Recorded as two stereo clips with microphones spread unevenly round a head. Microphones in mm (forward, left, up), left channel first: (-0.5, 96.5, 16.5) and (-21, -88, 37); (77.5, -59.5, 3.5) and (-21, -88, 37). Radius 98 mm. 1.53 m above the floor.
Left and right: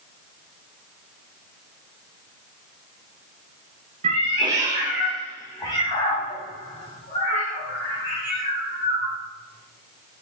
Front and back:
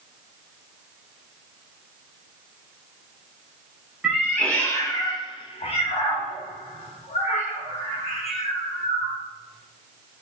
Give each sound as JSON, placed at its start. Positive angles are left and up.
{"t": 4.0, "sound": "a cat meowing", "azimuth_deg": -110, "distance_m": 0.9}